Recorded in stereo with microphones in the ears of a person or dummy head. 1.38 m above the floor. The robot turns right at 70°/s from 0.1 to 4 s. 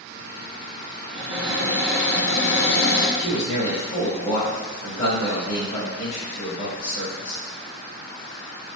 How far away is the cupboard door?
About 0.6 m.